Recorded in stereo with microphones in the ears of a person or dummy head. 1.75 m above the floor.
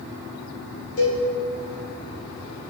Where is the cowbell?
60° left (ahead or behind), 3 m.